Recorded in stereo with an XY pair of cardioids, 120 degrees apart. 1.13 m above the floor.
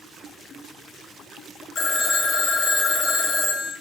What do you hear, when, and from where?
1.8 s a phone ringing: 45° left, 0.7 m